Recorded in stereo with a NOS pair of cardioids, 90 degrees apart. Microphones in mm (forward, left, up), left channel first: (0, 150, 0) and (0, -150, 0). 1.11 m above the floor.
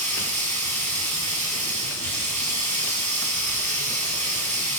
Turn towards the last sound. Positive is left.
turn(degrees=-20)